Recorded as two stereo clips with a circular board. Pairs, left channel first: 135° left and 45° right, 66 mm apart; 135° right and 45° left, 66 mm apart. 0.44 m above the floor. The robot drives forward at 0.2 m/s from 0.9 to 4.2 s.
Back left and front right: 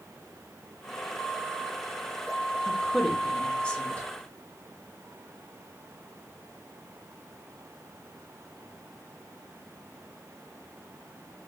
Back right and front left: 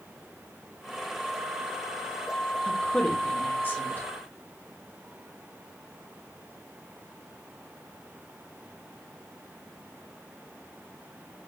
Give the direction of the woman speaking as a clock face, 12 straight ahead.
5 o'clock.